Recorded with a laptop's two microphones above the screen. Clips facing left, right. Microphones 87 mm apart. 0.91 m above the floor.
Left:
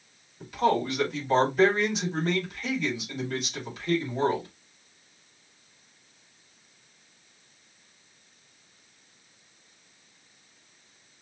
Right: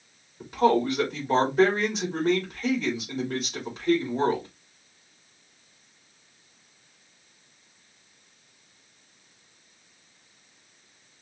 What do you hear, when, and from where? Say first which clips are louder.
0.4 s a man speaking: right 3 dB; 40° right (ahead or behind), 2.5 m